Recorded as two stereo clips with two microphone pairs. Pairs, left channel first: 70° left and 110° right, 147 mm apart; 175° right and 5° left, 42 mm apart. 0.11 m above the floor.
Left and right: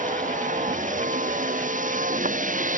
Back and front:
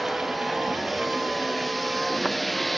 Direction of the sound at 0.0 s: 85° right.